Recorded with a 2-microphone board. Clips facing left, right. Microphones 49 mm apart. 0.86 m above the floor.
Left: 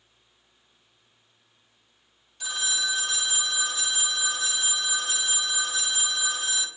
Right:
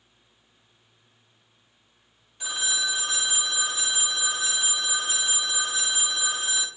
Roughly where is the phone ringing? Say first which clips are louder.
Right 1 dB; centre.